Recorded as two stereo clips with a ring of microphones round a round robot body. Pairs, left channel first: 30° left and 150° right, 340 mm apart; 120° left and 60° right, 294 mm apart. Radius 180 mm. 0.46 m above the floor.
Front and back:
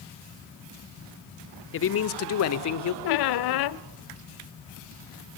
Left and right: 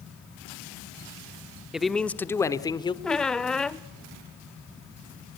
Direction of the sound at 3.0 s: 30° left.